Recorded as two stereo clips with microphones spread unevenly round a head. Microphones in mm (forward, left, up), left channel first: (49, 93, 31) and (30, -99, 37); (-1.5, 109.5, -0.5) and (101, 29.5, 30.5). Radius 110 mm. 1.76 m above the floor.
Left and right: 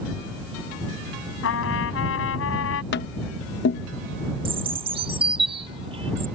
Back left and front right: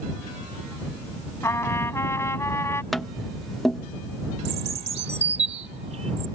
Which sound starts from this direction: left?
A trumpet, at 1.4 s.